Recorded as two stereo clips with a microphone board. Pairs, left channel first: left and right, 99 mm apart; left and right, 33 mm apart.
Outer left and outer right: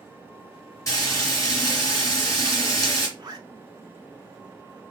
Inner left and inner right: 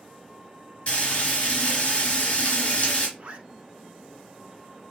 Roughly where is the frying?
Left.